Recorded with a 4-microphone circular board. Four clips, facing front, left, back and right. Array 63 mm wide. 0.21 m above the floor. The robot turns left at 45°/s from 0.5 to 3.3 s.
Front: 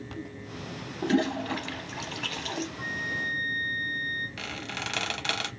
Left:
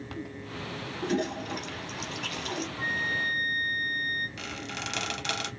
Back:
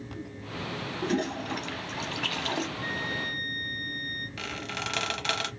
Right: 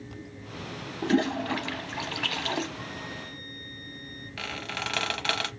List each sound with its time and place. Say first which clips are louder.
1.0 s a toilet flushing: right 5 dB, front 4 dB; 50° right, 0.6 m; by 2.7 s 125° right, 0.6 m
2.8 s a flute: left 9 dB, front 1 dB; 155° left, 2.5 m; by 4.3 s 130° left, 2.5 m
4.4 s a squeak: right 2 dB, back 1 dB; 90° right, 0.9 m